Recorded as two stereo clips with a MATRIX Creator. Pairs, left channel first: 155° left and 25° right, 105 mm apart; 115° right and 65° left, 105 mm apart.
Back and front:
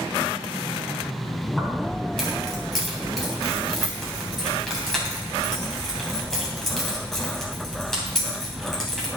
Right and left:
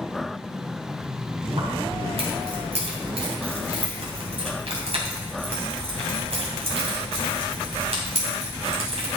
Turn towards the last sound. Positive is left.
turn(degrees=70)